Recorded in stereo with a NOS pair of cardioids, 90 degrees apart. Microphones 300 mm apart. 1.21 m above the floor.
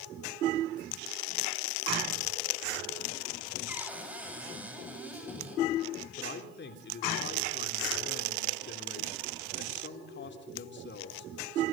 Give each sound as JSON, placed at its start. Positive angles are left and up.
{"t": 3.7, "sound": "a cupboard door", "azimuth_deg": -5, "distance_m": 9.5}
{"t": 6.2, "sound": "a man speaking", "azimuth_deg": 35, "distance_m": 3.5}